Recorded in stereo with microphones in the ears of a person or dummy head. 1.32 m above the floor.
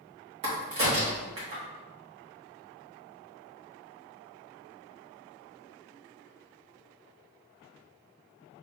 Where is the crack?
35° right (ahead or behind), 1.2 m.